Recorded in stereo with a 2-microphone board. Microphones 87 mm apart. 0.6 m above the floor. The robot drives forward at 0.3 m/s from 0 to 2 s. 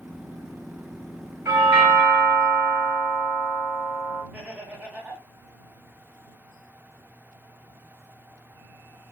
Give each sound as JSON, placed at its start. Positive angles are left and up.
{"t": 1.4, "sound": "a doorbell", "side_deg": -30, "distance_m": 1.8}
{"t": 4.3, "sound": "laughter", "side_deg": -15, "distance_m": 0.8}